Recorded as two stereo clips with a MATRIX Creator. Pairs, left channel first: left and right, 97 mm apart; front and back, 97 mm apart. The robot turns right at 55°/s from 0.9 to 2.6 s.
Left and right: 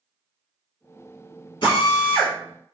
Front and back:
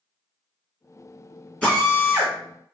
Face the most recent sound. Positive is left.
turn(degrees=135)